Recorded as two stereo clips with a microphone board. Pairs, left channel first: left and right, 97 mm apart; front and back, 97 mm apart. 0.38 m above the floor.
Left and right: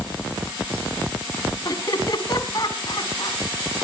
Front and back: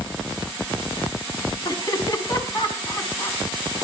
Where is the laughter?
45° left, 4 m.